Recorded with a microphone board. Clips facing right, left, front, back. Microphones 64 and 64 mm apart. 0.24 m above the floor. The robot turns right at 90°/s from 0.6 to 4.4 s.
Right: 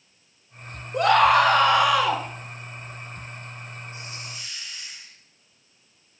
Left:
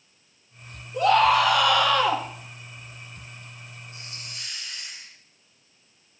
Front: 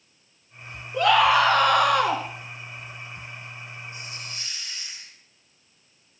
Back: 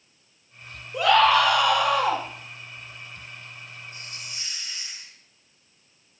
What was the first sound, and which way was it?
A scream, 105° right.